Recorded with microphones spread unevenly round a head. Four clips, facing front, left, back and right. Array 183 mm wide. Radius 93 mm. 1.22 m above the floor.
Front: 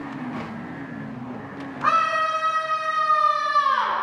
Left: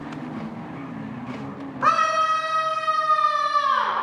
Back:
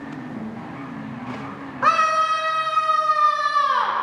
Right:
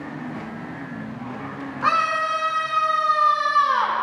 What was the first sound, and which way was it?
A scream, 170° left.